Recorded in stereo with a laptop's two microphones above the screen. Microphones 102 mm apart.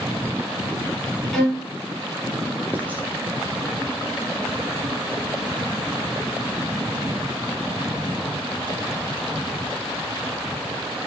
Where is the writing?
15° right (ahead or behind), 0.5 m.